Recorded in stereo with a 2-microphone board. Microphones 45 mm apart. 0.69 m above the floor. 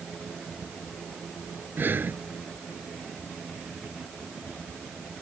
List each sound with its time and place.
1.8 s breathing: 45° right (ahead or behind)